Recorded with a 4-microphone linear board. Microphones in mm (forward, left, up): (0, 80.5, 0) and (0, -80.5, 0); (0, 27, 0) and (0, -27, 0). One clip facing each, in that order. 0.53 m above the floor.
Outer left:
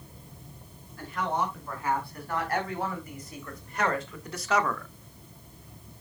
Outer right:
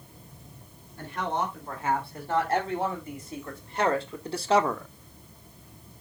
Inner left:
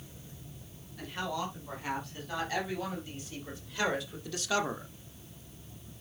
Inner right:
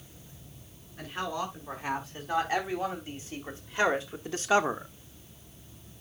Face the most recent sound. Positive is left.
turn(degrees=-20)  # may be behind; listen again after turning